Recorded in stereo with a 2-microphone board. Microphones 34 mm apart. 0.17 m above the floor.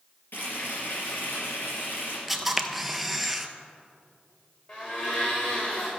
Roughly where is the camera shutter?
Centre.